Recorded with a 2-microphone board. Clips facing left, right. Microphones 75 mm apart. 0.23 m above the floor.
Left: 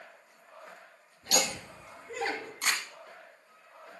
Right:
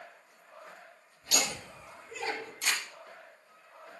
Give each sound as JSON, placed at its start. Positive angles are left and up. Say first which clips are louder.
{"t": 1.2, "sound": "laughter", "louder": "left 3 dB", "side_deg": 65, "distance_m": 4.0}
{"t": 2.6, "sound": "crumpling", "louder": "left 2 dB", "side_deg": 50, "distance_m": 1.3}